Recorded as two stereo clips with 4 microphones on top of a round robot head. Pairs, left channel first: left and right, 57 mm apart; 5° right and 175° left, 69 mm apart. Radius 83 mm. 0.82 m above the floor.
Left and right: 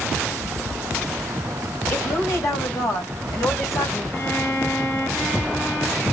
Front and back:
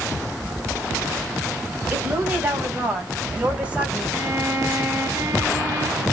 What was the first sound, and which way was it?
A woman speaking, 115° left.